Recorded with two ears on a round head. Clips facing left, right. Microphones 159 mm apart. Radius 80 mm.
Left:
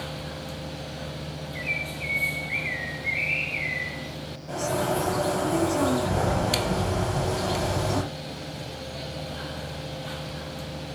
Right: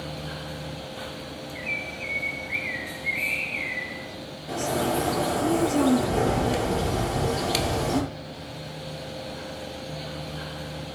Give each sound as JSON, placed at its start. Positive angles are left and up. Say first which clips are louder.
{"t": 1.6, "sound": "a bird", "louder": "even", "side_deg": 40, "distance_m": 2.0}
{"t": 4.5, "sound": "a bird", "louder": "right 1 dB", "side_deg": -20, "distance_m": 5.0}